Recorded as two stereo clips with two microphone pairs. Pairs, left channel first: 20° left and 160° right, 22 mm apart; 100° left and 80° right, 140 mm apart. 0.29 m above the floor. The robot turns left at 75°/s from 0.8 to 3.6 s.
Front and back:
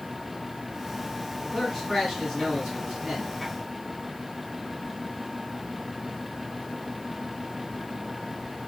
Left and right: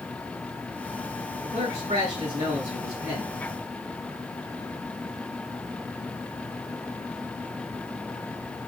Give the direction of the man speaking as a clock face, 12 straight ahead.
2 o'clock.